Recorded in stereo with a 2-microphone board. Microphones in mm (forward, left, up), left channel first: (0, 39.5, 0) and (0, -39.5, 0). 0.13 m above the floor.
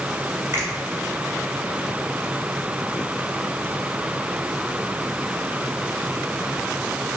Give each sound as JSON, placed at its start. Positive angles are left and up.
{"t": 0.5, "sound": "a finger snap", "side_deg": -35, "distance_m": 1.0}